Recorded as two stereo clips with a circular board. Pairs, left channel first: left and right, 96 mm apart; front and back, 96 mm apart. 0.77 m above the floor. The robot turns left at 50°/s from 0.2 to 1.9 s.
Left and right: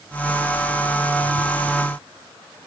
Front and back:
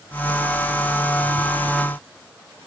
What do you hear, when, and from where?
Only background noise.